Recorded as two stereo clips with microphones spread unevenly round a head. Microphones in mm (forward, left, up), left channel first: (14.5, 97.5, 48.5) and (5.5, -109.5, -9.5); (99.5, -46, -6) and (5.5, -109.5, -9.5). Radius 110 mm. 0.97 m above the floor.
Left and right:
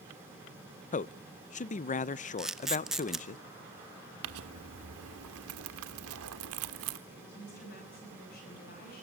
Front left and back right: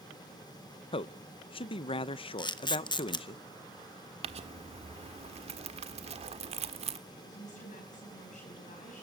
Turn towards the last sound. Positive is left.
turn(degrees=40)